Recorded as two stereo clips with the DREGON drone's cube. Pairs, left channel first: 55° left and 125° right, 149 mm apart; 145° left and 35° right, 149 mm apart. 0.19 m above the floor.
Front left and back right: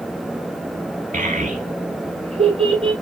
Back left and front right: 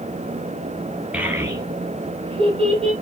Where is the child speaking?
115° right, 1.4 m; by 2.9 s 75° right, 2.5 m.